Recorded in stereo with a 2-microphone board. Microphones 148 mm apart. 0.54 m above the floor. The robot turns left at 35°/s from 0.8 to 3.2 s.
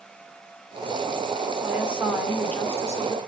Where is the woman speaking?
160° right, 1.6 m; by 3.2 s 145° left, 1.6 m.